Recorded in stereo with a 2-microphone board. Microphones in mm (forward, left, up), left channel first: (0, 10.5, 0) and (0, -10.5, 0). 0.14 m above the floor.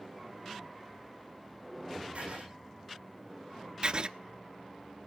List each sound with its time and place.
2.1 s writing: 80° right, 9.5 m
3.8 s writing: 50° right (ahead or behind), 0.7 m